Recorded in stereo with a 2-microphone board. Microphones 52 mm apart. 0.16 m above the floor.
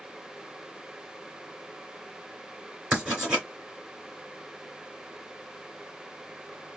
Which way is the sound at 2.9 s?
15° right (ahead or behind).